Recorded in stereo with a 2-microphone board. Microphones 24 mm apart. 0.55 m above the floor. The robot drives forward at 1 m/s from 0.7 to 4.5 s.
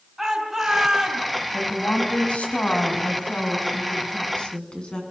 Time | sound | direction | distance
0.2 | a shout | 10° right (ahead or behind) | 6 m
1.5 | a woman speaking | 75° left (ahead or behind) | 4.5 m